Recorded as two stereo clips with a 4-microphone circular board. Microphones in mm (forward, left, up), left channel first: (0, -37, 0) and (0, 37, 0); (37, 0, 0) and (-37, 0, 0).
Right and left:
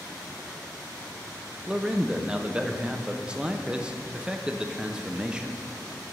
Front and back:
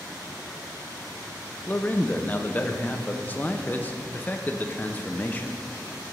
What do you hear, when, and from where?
1.7 s a man speaking: 30° left, 0.5 m